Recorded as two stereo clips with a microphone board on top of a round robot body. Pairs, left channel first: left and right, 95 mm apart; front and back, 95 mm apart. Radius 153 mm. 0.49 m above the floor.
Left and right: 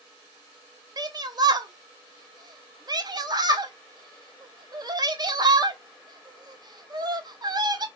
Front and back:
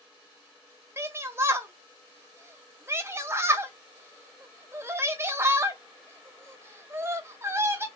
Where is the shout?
120° right, 1.2 m.